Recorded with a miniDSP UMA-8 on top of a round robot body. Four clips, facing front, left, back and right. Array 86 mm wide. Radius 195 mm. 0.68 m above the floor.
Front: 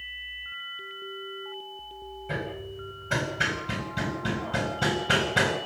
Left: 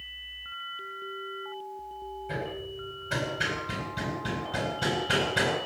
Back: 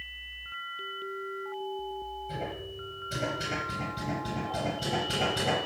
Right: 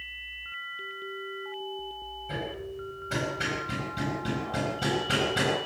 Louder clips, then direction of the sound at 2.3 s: Right 1 dB, front 3 dB; straight ahead.